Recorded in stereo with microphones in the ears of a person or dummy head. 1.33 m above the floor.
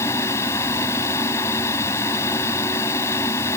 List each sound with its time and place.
0.0 s a fan: 15° left (ahead or behind)